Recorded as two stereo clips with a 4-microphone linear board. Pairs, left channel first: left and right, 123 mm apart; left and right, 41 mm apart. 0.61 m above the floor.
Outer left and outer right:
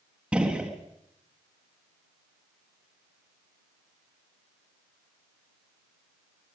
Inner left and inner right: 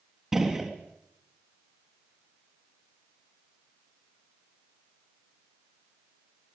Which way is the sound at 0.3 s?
10° right (ahead or behind).